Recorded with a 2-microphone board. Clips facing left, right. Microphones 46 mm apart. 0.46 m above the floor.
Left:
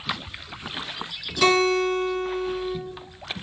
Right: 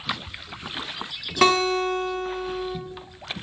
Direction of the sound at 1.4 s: 50° right (ahead or behind).